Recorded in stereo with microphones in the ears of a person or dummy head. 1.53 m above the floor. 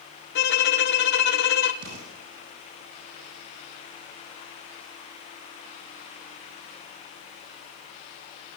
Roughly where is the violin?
Left.